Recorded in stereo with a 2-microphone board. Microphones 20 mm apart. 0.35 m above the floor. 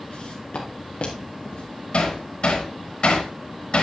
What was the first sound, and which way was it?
Footsteps, 65° left (ahead or behind).